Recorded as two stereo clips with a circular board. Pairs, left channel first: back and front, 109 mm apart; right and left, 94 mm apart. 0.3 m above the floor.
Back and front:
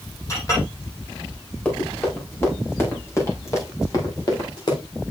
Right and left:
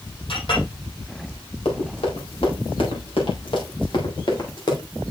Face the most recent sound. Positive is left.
turn(degrees=-130)